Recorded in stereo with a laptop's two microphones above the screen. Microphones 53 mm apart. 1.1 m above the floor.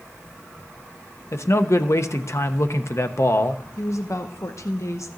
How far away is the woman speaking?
About 0.9 m.